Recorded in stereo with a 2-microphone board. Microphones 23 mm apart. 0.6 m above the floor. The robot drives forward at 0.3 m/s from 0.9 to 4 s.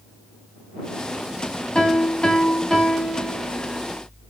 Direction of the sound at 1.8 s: 35° left (ahead or behind).